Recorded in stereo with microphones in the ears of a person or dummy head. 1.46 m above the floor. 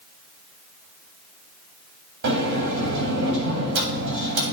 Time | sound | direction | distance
2.2 | a sliding door | 70° right (ahead or behind) | 1.6 m